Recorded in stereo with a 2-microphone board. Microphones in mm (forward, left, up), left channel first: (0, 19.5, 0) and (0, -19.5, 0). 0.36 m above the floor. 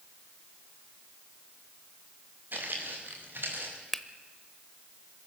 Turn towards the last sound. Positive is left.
turn(degrees=10)  # may be behind; listen again after turning